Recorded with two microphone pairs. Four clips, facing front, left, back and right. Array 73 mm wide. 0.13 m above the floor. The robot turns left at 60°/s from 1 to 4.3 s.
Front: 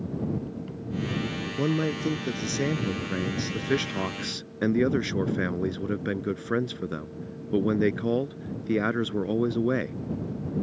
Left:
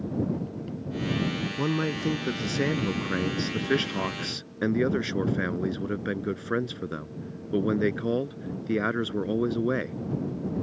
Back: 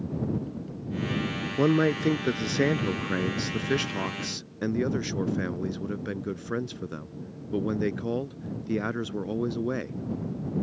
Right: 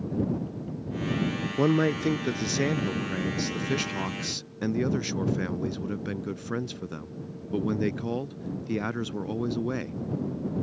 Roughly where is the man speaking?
Behind right.